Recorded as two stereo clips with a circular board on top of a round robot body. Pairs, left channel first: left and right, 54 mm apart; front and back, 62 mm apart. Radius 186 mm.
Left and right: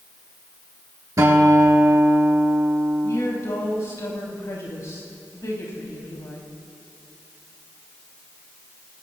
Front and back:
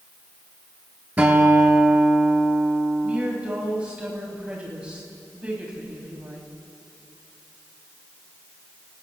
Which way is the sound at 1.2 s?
115° right.